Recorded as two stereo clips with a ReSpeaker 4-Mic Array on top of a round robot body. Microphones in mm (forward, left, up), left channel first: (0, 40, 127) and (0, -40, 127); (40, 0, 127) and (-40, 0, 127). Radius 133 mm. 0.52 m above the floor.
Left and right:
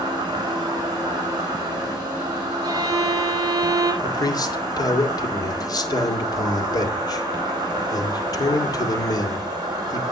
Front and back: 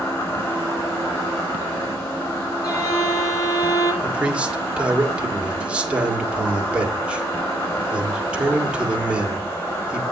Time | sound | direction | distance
0.0 | an insect | 55° right | 4.5 m
2.6 | a violin | 45° right | 2.5 m
4.0 | a man speaking | 105° left | 1.9 m